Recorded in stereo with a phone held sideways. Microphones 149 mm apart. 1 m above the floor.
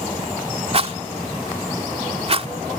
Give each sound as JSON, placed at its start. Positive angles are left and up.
{"t": 0.7, "sound": "a rattle", "side_deg": -45}